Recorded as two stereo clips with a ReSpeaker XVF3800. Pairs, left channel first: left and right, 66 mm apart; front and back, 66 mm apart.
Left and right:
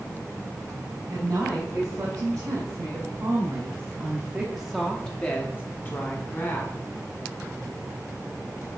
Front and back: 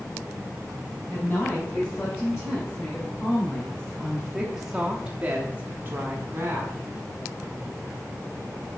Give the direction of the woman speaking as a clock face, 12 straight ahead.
2 o'clock.